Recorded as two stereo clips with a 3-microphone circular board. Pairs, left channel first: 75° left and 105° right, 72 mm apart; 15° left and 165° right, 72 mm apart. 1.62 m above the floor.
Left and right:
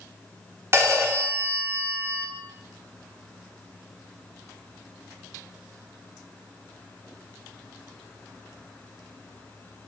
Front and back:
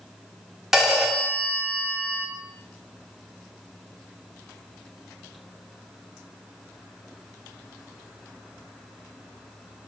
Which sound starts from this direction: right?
A phone ringing, at 0.7 s.